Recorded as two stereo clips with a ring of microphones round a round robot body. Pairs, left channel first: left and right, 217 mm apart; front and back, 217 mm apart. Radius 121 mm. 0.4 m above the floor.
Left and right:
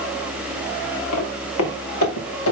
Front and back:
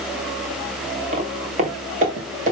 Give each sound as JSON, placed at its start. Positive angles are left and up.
{"t": 1.1, "sound": "footsteps", "azimuth_deg": 120, "distance_m": 3.0}